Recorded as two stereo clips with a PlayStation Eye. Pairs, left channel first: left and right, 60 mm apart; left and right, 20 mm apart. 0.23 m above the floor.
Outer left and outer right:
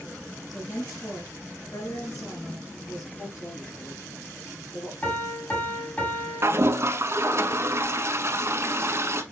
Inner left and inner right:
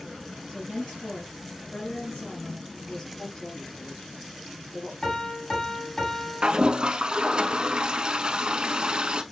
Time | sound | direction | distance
0.5 | a woman speaking | 70° left (ahead or behind) | 3.5 m
3.2 | a woman speaking | 65° left (ahead or behind) | 4 m
5.0 | a piano | 30° left (ahead or behind) | 1.9 m
6.4 | a toilet flushing | 50° right (ahead or behind) | 0.5 m